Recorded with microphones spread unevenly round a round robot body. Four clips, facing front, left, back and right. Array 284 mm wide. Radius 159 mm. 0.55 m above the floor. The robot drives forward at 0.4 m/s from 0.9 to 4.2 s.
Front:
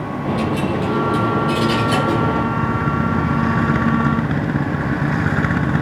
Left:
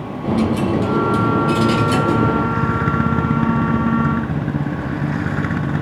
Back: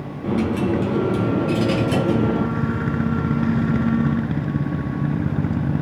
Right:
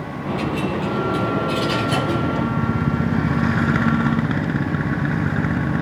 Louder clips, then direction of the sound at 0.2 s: Left 6 dB, even; 120° left.